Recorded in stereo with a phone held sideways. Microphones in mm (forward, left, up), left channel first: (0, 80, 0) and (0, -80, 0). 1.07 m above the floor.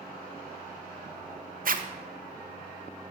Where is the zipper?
65° right (ahead or behind), 0.5 m.